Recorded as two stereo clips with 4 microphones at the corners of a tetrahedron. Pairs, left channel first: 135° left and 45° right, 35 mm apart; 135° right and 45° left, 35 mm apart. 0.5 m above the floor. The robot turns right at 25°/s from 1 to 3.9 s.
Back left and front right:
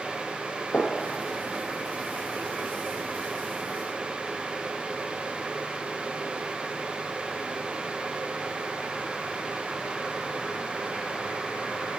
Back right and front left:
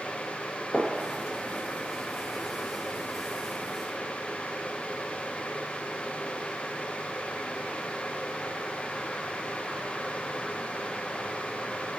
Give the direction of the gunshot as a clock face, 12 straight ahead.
7 o'clock.